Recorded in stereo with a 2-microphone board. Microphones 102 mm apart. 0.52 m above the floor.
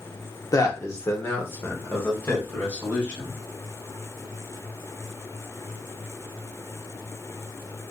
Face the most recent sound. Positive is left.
turn(degrees=15)  # may be behind; listen again after turning